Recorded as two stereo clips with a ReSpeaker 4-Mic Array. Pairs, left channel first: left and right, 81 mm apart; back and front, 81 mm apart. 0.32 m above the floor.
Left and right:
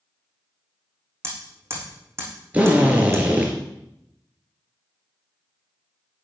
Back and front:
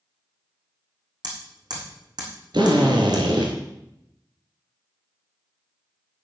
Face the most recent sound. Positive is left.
turn(degrees=-20)